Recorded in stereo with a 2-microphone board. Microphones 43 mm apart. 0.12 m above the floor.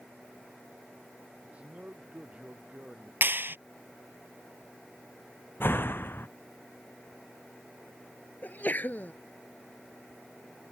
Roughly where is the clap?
Right.